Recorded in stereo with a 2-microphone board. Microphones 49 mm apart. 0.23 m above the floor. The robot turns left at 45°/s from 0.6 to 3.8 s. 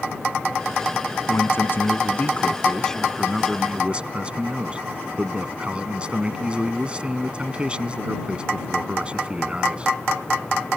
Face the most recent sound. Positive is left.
turn(degrees=-30)